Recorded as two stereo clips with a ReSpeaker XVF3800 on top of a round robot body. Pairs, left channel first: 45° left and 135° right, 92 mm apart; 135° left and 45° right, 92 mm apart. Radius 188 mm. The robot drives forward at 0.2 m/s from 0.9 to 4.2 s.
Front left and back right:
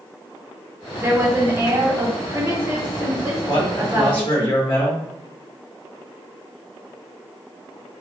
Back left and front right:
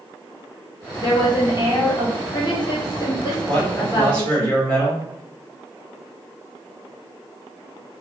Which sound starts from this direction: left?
A man speaking, at 3.5 s.